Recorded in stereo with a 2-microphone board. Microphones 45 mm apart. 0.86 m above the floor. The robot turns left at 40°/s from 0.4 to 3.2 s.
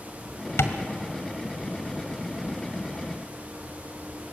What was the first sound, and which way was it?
Tapping, 75° left (ahead or behind).